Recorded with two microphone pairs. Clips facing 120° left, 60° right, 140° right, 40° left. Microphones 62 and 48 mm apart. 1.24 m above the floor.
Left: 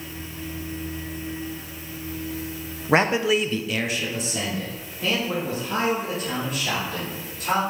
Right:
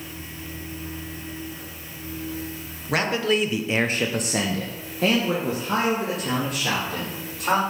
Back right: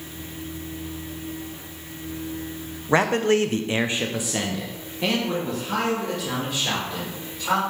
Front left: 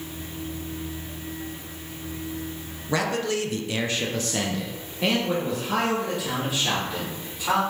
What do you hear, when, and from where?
2.9 s a man speaking: 170° left, 0.8 m; by 7.6 s 40° right, 3 m